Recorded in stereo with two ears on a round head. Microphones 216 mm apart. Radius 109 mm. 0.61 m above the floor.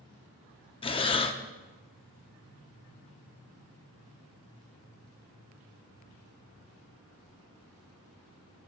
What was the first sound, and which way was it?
Breathing, 20° left (ahead or behind).